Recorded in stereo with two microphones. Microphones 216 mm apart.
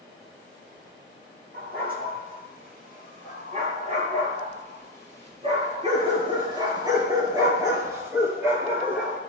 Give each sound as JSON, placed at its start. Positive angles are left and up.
{"t": 1.5, "sound": "a dog barking", "side_deg": -45, "distance_m": 7.0}